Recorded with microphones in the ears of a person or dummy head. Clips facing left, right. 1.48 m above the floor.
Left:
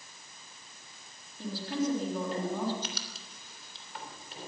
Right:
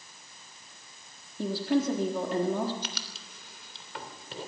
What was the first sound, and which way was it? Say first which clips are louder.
A woman speaking: right 6 dB; 55° right (ahead or behind).